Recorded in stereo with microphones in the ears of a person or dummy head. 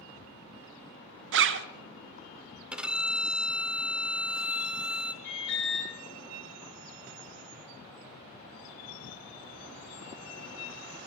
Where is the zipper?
60° right (ahead or behind), 0.5 m.